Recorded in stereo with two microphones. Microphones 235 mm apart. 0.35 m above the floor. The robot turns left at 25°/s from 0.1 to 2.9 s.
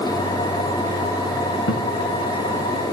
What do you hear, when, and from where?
1.7 s a guitar: 75° left (ahead or behind), 1.5 m; by 1.9 s 80° left, 1.5 m